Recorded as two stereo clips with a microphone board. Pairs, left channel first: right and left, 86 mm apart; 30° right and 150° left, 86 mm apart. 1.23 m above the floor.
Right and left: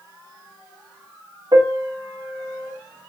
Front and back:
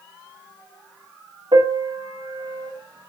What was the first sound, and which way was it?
A piano, 125° left.